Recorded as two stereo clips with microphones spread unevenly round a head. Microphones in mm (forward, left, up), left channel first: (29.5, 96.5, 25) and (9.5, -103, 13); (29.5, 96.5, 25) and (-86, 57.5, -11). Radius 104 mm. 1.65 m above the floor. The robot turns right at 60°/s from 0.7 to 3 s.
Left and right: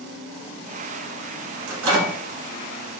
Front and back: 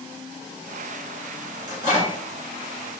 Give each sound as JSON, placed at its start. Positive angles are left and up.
{"t": 1.7, "sound": "a microwave", "azimuth_deg": -90, "distance_m": 1.4}